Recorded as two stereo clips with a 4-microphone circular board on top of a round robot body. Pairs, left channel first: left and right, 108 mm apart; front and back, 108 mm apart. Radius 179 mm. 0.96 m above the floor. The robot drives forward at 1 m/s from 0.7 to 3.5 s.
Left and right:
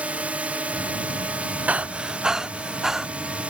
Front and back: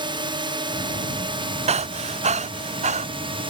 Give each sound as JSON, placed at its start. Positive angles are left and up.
{"t": 0.0, "sound": "a drone", "azimuth_deg": -165}
{"t": 1.7, "sound": "breathing", "azimuth_deg": -165}